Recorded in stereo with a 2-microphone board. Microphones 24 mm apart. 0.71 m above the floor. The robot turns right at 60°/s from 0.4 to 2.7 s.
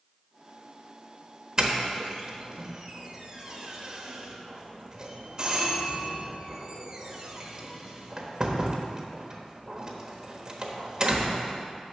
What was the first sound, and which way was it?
A doorbell, 20° right (ahead or behind).